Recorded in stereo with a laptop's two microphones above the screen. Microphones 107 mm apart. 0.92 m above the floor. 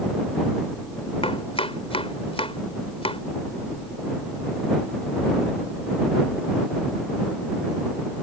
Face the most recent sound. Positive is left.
turn(degrees=75)  # may be behind; listen again after turning